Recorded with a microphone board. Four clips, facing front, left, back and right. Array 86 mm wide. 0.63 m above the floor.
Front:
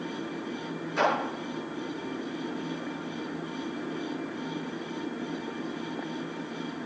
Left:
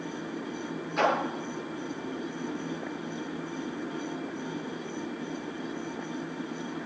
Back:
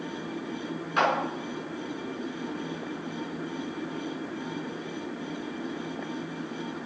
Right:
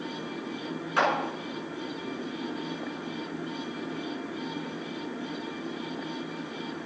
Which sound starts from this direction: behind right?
A clap, at 1.0 s.